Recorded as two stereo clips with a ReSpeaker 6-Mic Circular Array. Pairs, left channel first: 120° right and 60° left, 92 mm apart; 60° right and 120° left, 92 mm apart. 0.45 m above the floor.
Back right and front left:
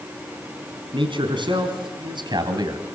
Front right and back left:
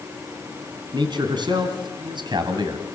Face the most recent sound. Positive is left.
turn(degrees=95)